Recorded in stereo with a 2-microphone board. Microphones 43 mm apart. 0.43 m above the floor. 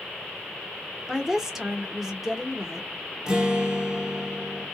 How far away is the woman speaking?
About 0.7 m.